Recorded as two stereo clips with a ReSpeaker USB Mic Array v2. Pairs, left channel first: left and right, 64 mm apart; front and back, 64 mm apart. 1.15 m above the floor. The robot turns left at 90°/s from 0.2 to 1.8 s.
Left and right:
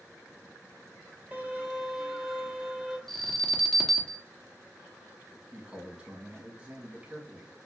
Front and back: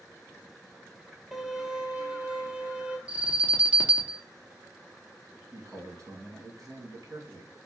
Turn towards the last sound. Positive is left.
turn(degrees=-170)